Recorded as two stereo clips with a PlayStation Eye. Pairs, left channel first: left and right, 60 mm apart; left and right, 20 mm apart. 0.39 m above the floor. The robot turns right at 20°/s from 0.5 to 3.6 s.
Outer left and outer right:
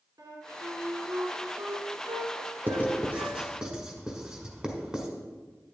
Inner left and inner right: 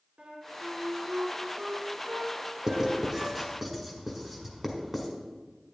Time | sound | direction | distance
0.2 | a flute | 65° right (ahead or behind) | 2.5 m
2.7 | writing | 30° right (ahead or behind) | 1.6 m